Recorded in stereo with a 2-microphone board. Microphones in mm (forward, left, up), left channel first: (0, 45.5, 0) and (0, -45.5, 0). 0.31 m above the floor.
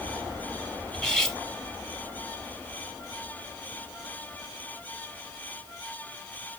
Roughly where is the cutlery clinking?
Centre.